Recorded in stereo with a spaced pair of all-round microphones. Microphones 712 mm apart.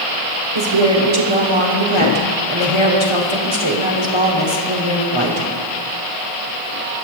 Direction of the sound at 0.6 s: 40° right (ahead or behind).